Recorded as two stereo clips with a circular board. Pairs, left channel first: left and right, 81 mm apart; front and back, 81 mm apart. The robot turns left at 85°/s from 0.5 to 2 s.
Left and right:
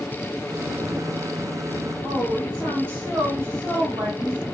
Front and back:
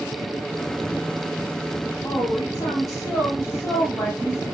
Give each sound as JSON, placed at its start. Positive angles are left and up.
{"t": 2.0, "sound": "a woman speaking", "azimuth_deg": -30, "distance_m": 1.9}